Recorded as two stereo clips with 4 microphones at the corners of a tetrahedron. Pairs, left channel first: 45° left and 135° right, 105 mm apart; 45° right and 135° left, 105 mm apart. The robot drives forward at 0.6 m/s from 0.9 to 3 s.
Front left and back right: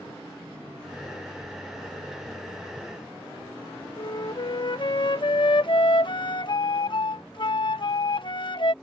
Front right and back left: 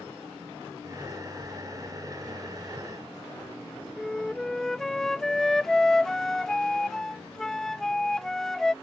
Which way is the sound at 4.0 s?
40° left.